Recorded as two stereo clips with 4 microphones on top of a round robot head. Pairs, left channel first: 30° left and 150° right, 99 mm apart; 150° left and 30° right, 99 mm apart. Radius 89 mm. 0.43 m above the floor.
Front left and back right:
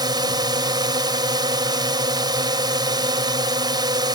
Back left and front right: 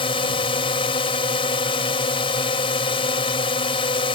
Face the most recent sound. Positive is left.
turn(degrees=170)